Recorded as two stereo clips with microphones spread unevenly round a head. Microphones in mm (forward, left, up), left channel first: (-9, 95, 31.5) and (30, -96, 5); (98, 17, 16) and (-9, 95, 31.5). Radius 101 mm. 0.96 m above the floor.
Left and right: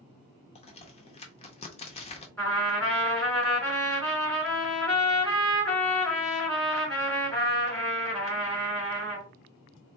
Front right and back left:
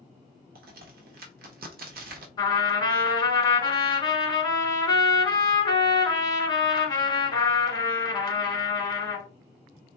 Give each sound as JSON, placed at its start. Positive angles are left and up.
{"t": 0.6, "sound": "a crack", "azimuth_deg": 165, "distance_m": 0.7}
{"t": 2.4, "sound": "a trumpet", "azimuth_deg": 15, "distance_m": 2.5}